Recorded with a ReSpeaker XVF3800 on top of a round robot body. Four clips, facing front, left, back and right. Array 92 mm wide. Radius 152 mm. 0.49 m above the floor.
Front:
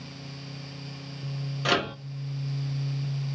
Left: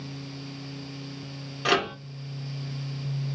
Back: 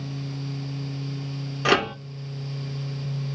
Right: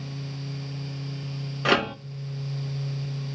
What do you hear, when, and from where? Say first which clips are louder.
1.6 s a microwave: right 2 dB, back 5 dB; 150° right, 0.9 m